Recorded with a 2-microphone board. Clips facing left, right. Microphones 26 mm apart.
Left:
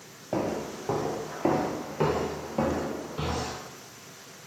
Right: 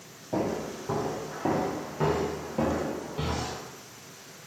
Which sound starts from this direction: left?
Footsteps, at 0.3 s.